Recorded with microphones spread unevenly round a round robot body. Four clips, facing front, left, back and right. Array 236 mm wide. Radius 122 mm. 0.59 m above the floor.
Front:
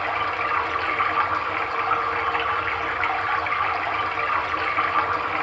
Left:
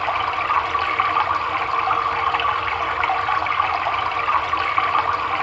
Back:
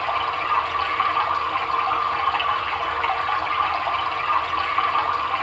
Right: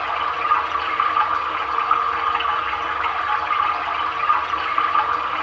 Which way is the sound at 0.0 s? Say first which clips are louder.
Left 1 dB, back 1 dB; 85° left.